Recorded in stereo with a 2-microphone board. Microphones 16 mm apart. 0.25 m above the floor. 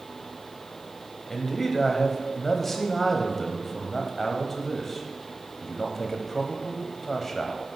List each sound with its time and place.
1.3 s a man speaking: 20° left (ahead or behind), 0.9 m